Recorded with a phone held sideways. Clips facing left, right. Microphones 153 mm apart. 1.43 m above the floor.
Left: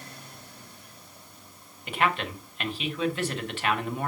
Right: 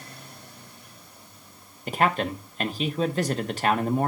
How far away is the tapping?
No tapping in this recording.